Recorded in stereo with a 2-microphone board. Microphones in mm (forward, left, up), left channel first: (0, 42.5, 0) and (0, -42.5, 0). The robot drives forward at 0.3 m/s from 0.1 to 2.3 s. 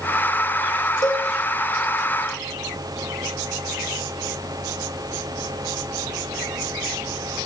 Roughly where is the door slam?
No door slam in this recording.